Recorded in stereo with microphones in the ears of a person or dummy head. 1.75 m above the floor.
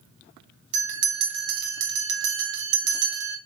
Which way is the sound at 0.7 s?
60° right (ahead or behind).